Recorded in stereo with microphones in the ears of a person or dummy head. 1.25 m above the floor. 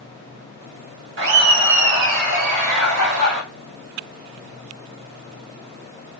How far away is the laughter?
About 1.2 m.